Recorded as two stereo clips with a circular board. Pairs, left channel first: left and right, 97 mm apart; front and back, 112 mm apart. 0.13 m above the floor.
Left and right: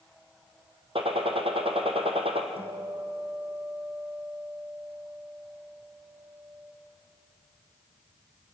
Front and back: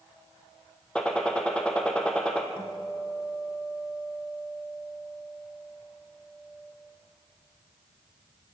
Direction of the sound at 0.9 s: 80° right.